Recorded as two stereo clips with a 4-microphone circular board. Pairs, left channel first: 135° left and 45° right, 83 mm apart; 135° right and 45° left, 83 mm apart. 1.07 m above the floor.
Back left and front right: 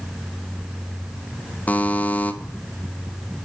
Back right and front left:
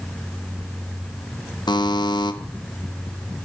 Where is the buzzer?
155° right, 0.6 m.